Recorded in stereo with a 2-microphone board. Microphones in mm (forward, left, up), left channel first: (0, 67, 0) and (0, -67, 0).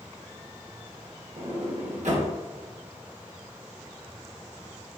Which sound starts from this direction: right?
A sliding door, at 1.4 s.